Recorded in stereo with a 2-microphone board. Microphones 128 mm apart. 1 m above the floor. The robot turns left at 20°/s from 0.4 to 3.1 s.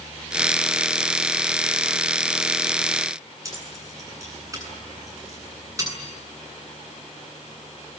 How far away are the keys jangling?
About 8.5 m.